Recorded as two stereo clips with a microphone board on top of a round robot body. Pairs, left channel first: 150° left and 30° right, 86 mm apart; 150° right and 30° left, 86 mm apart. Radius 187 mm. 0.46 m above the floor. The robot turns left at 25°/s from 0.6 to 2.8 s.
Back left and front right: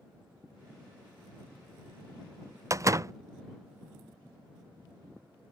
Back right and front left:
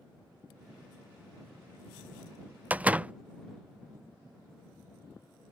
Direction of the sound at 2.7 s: 30° right.